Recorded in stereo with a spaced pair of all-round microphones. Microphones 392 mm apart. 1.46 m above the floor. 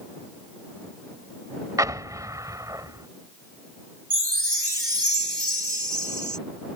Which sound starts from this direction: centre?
An explosion, at 1.8 s.